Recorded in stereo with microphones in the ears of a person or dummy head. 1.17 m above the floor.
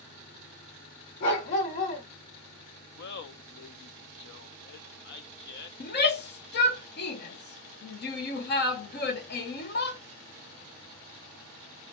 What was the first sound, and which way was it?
A dog barking, 45° left (ahead or behind).